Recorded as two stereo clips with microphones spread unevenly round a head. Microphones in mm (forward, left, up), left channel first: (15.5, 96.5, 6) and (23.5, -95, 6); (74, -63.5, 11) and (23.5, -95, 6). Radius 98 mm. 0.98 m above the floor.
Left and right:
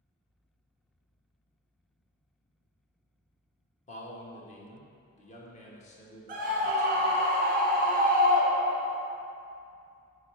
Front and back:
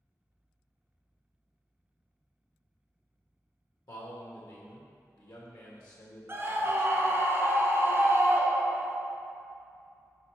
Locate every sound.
3.9 s a man speaking: 40° left, 1.3 m
6.3 s a scream: 120° right, 1.2 m